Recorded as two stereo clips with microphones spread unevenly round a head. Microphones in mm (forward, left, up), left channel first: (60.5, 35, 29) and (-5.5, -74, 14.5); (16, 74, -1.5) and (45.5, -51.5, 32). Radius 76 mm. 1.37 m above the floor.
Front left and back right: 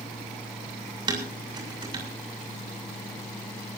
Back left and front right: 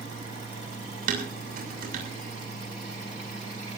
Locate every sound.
0.0 s a fan: 140° left, 6.5 m
1.1 s dishes clattering: 65° right, 7 m